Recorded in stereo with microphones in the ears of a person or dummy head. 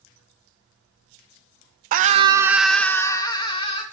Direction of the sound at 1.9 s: 50° right (ahead or behind).